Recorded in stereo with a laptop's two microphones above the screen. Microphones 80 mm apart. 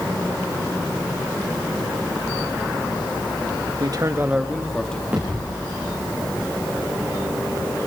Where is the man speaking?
55° right (ahead or behind), 1.0 m; by 5.0 s 10° left (ahead or behind), 1.8 m.